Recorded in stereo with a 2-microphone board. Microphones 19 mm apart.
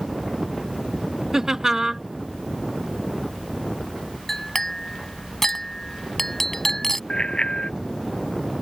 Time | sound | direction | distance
1.3 | laughter | 30° right (ahead or behind) | ?
4.3 | a clink | 20° left (ahead or behind) | ?
7.1 | a bicycle bell | 65° left (ahead or behind) | ?